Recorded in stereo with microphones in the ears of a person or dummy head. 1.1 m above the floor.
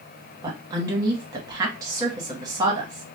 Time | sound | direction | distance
0.4 | a woman speaking | 20° right (ahead or behind) | 0.8 m